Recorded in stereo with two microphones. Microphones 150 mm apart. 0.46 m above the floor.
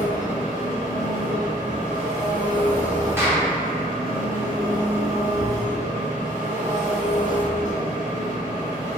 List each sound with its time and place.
0.0 s an engine running: 60° right (ahead or behind), 0.8 m
3.2 s a clap: 15° right (ahead or behind), 0.6 m
5.4 s a thud: 45° left (ahead or behind), 0.5 m